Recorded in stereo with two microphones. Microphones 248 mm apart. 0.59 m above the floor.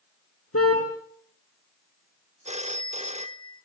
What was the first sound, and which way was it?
A car horn, 70° left (ahead or behind).